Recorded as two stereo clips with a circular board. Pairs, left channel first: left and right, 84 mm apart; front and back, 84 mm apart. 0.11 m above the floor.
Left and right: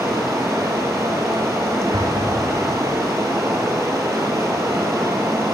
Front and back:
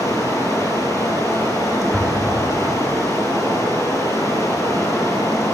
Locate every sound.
0.0 s running water: 40° right, 2.5 m
1.9 s an explosion: 85° right, 2.0 m